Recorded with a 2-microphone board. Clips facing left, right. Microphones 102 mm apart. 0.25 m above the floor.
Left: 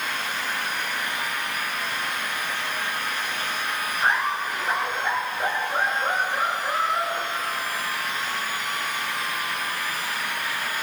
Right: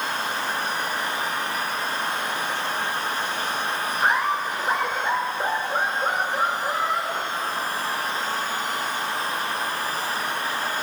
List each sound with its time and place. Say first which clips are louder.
4.0 s laughter: right 1 dB; 15° right (ahead or behind), 10 m; by 7.8 s 10° right (ahead or behind), 13 m